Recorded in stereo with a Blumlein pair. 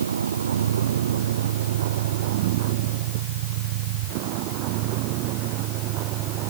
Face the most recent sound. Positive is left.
turn(degrees=-40)